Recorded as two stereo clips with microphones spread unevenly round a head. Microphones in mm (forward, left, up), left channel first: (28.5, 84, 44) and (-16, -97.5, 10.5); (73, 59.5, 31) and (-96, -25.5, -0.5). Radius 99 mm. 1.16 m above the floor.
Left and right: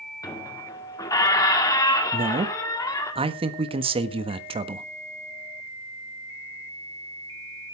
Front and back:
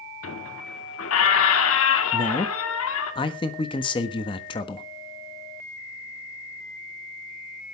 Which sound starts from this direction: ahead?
A squeak, at 0.2 s.